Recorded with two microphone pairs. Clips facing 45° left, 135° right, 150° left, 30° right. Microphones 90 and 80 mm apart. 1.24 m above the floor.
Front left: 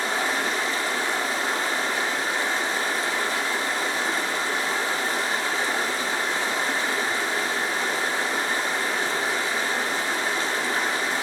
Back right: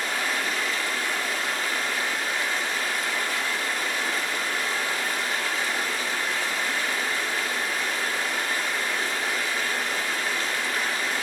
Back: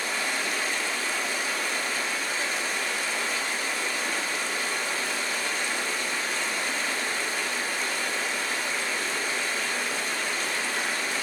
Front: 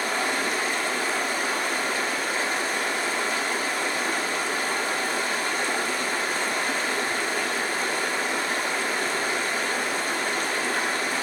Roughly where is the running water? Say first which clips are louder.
Front left 3 dB, front 4 dB; ahead.